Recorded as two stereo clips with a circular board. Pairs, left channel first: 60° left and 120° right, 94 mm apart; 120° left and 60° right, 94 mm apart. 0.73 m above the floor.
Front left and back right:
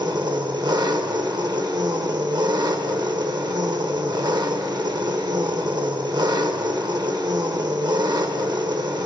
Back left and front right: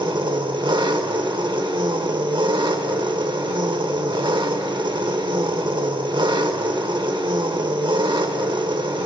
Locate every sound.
0.0 s an engine running: 85° right, 0.8 m